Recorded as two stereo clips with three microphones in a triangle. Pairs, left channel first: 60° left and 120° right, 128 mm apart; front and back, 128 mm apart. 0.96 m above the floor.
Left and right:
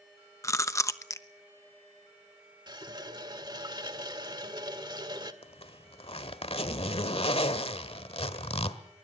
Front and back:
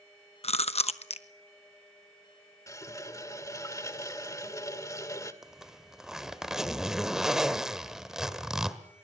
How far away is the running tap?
About 1.7 m.